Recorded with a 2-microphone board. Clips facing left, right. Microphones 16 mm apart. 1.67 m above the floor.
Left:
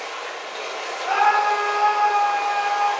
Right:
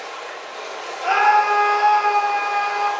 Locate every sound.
0.0 s running water: 60° left (ahead or behind), 2.5 m
1.0 s a scream: 75° right (ahead or behind), 1.5 m